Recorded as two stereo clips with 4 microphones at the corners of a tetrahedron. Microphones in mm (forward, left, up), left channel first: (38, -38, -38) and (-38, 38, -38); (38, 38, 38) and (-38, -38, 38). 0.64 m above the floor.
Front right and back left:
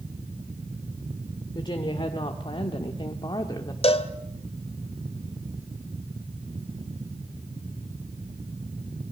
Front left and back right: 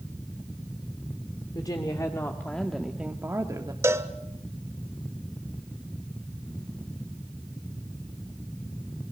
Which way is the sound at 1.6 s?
5° right.